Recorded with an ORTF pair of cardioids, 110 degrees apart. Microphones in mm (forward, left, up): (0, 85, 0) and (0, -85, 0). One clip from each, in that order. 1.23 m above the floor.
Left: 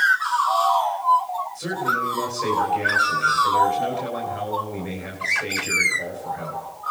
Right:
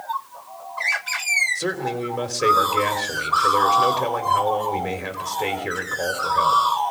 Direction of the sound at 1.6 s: 55° right.